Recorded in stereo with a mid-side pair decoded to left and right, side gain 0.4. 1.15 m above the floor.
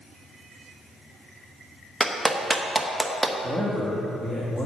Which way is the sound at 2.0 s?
30° right.